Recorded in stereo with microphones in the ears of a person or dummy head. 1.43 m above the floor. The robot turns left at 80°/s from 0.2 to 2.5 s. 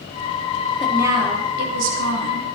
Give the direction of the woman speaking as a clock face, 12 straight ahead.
12 o'clock.